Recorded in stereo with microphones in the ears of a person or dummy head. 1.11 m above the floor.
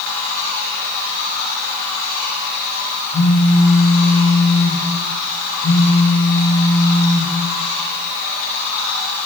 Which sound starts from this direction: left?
A phone buzzing, at 3.1 s.